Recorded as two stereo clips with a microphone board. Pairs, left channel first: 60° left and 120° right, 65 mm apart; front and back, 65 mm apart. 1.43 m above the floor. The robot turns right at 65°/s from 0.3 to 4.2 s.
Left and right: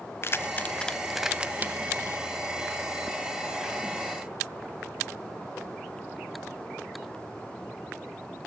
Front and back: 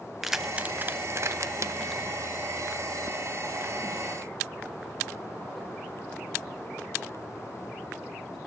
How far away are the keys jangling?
About 0.6 m.